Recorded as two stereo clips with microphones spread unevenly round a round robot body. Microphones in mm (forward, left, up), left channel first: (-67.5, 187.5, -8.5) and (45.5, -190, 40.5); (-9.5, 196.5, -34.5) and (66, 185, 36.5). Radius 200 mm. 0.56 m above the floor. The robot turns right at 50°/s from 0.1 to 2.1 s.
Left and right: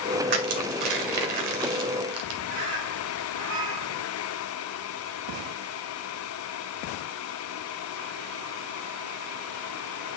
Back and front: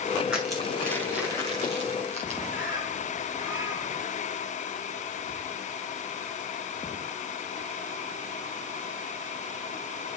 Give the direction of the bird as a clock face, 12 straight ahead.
3 o'clock.